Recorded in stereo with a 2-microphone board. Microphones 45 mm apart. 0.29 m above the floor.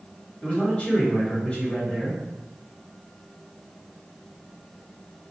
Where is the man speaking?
30° left (ahead or behind), 1.6 m.